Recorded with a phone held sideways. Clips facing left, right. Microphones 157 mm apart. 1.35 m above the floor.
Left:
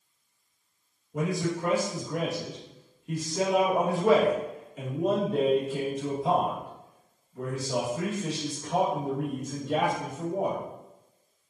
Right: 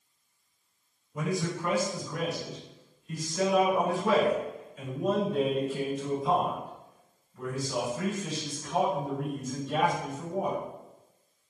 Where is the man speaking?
65° left (ahead or behind), 2 m.